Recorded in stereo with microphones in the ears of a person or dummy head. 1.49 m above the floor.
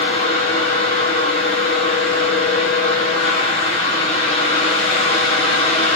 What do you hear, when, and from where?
0.0 s a fan: 30° left (ahead or behind), 1.1 m